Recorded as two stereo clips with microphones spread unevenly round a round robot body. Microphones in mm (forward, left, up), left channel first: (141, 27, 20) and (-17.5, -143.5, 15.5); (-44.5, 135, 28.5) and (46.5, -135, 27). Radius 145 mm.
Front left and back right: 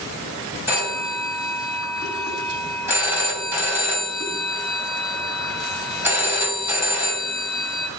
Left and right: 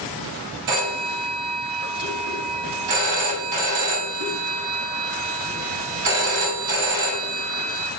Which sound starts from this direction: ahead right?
A phone ringing, at 0.7 s.